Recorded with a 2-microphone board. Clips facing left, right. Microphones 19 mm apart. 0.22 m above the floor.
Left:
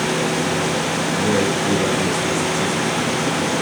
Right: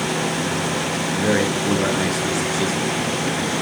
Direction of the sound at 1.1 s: 65° right (ahead or behind).